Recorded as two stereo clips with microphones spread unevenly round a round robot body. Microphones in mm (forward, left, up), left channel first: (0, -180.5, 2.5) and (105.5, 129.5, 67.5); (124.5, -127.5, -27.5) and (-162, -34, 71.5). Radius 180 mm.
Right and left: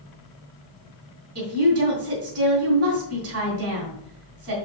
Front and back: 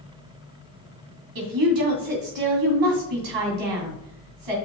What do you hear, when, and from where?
1.4 s a woman speaking: 125° left, 3 m